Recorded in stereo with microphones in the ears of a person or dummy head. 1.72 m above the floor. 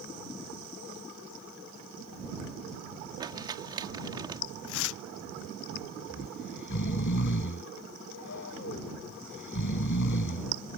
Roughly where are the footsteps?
No footsteps in this recording.